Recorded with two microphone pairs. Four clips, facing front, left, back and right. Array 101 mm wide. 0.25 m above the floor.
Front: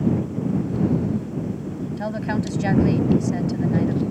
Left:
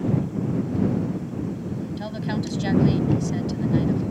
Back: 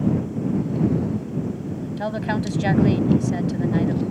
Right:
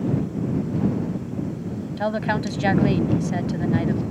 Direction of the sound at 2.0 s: 100° right.